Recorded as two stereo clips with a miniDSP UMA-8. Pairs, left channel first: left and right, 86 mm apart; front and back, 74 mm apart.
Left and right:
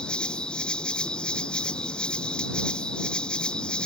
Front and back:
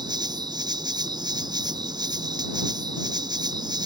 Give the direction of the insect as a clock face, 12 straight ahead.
6 o'clock.